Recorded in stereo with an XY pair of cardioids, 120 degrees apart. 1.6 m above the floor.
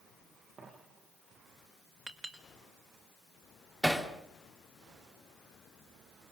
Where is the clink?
15° right, 3.5 m.